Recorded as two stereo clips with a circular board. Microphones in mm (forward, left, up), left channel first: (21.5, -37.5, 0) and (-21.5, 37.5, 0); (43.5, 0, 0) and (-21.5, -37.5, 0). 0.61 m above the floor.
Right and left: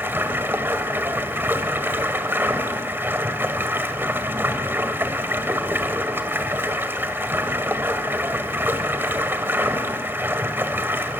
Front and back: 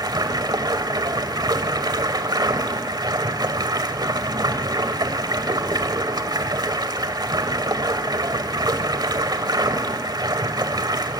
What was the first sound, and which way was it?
Running water, 175° right.